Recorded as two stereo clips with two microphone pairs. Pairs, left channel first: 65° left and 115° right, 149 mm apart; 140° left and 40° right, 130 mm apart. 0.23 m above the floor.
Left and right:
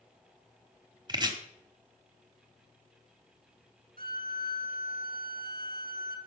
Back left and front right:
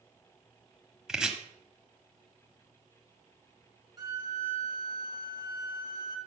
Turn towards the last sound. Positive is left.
turn(degrees=-100)